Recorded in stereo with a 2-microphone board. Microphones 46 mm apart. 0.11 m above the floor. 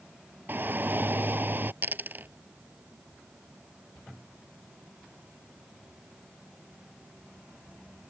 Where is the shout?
50° right (ahead or behind).